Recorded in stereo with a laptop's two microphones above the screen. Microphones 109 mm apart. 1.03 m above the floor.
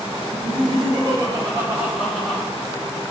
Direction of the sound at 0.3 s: 60° right (ahead or behind).